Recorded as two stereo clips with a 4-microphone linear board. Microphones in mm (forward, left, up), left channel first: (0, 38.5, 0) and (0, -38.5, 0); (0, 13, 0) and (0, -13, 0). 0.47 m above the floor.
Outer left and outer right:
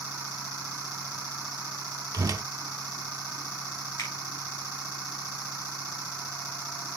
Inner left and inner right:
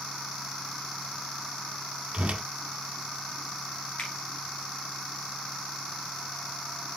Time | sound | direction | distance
2.1 | a whoosh | 55° right (ahead or behind) | 0.8 m
4.0 | a finger snap | 40° left (ahead or behind) | 4.5 m